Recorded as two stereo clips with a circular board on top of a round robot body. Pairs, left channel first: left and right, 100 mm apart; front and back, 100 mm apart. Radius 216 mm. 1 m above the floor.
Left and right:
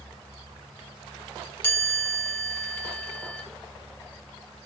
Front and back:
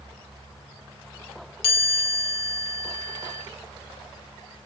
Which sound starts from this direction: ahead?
A chime, at 1.6 s.